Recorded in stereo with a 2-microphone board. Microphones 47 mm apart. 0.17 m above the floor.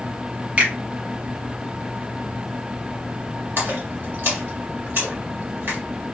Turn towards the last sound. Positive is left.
turn(degrees=-50)  # may be behind; listen again after turning